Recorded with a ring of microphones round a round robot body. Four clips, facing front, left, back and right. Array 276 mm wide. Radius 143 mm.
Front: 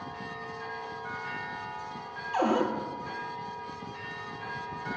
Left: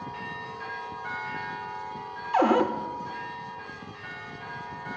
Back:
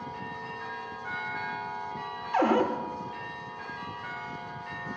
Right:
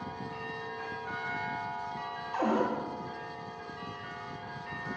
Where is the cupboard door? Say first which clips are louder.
Left 7 dB, back 2 dB; 110° left, 0.5 m.